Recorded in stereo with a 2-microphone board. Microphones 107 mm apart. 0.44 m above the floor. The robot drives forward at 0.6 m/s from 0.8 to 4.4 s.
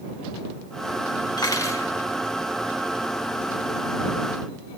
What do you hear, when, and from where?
1.4 s cutlery clinking: 35° left (ahead or behind), 1.0 m; by 1.9 s 30° left (ahead or behind), 1.2 m